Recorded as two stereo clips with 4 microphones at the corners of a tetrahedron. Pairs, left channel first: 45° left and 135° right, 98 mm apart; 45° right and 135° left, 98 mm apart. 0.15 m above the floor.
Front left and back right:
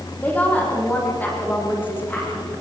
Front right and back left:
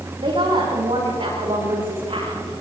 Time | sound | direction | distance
0.2 | a woman speaking | 120° left | 8 m